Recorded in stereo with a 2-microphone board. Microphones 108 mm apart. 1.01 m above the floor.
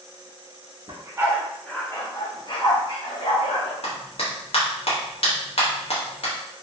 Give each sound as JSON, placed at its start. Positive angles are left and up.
{"t": 0.9, "sound": "a dog barking", "side_deg": -35, "distance_m": 0.6}
{"t": 3.8, "sound": "a clap", "side_deg": 65, "distance_m": 1.1}